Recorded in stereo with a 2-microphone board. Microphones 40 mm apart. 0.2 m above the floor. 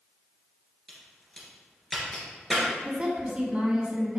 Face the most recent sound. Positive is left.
turn(degrees=-30)  # may be behind; listen again after turning